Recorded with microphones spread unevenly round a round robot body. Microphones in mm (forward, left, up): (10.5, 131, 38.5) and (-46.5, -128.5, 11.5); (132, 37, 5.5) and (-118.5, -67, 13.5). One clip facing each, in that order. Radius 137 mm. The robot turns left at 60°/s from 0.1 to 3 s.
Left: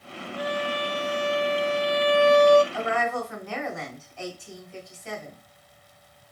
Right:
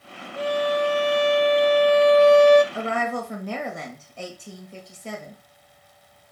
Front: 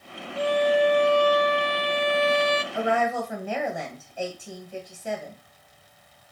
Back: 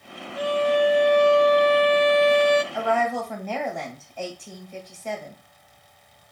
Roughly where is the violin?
Ahead right.